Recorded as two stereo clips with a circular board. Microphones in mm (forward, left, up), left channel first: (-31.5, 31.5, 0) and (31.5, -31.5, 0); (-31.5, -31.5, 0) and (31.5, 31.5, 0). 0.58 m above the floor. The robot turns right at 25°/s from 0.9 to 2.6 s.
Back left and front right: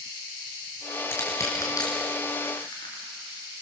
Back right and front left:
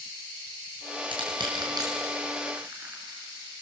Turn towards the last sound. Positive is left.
turn(degrees=110)